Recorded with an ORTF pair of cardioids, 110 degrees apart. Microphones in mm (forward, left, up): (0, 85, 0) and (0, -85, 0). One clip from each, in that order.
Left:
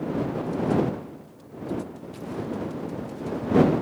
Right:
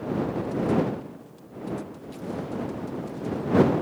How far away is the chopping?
No chopping in this recording.